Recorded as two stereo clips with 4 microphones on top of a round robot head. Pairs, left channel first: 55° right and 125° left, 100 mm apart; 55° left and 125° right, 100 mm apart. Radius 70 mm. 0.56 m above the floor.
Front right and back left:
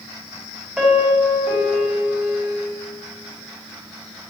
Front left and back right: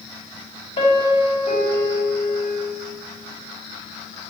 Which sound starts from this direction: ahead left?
A piano, at 0.8 s.